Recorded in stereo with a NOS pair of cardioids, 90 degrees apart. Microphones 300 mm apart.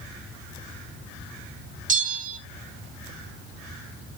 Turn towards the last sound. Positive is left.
turn(degrees=-30)